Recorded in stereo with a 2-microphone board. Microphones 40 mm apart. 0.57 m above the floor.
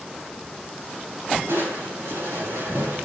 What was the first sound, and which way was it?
Crushing, 70° right (ahead or behind).